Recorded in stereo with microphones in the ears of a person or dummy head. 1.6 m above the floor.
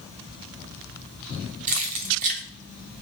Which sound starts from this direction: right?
Keys jangling, at 1.7 s.